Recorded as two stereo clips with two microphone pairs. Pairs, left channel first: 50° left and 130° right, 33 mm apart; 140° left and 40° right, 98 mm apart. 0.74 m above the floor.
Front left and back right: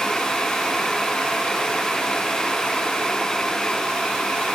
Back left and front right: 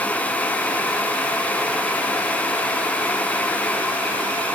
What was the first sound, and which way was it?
Only background noise.